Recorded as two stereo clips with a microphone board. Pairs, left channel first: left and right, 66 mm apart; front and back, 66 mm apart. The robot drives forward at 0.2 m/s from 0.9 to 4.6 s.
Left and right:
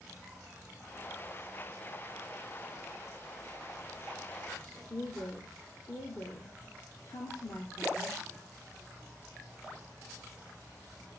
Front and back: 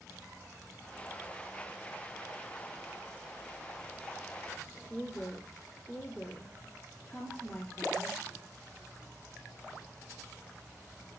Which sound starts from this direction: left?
A woman speaking, at 4.9 s.